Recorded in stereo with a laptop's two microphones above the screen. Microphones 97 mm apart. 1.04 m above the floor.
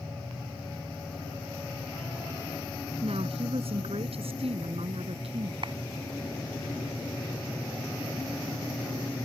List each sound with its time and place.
3.0 s a woman speaking: 80° right
5.6 s a clap: 55° right (ahead or behind)